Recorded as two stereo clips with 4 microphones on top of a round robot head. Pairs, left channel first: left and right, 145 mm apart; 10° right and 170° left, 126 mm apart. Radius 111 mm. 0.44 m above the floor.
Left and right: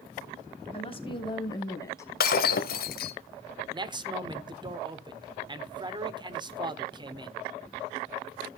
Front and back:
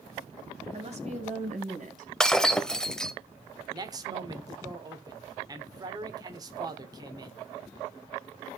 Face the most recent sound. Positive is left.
turn(degrees=-140)